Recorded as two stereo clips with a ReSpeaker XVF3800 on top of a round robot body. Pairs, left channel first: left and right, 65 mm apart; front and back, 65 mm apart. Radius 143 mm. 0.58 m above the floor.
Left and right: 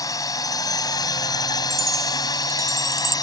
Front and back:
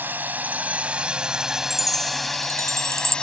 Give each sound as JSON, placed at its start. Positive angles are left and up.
{"t": 0.0, "sound": "a drone", "azimuth_deg": 120}
{"t": 1.7, "sound": "a chime", "azimuth_deg": -135}